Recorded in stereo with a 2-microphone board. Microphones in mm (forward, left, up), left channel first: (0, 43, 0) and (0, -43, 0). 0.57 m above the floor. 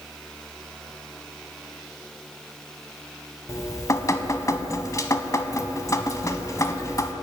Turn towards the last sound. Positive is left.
turn(degrees=40)  # may be behind; listen again after turning